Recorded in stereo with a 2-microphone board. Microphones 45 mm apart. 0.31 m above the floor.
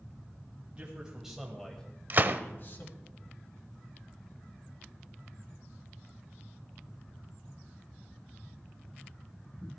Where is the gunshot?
45° right (ahead or behind), 0.5 m.